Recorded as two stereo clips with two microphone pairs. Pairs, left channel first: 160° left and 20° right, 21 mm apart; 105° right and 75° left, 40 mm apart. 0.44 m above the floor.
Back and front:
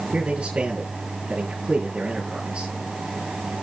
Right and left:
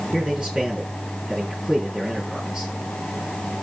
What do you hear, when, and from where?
0.1 s a man speaking: 5° left, 5 m